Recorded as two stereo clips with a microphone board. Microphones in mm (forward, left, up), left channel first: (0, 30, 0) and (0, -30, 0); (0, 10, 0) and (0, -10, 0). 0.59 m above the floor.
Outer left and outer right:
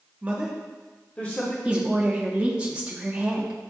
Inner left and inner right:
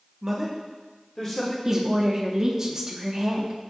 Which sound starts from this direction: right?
A man speaking, at 0.2 s.